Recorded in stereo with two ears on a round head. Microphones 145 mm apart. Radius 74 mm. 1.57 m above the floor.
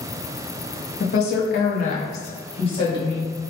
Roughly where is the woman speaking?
Left.